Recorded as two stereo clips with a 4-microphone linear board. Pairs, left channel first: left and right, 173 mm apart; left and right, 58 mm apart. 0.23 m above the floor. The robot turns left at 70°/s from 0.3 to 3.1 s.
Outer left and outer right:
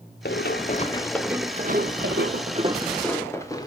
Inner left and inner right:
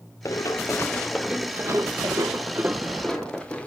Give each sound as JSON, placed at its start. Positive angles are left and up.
{"t": 0.2, "sound": "running footsteps", "side_deg": 85, "distance_m": 1.6}